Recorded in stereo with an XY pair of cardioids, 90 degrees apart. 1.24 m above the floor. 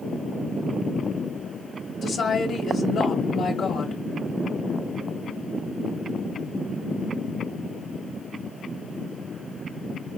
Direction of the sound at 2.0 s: 60° left.